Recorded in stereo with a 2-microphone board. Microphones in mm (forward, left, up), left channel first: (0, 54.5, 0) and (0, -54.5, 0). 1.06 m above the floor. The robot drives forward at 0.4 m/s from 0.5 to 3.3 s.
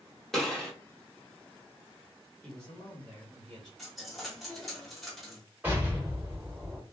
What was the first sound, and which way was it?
A gunshot, 5° left (ahead or behind).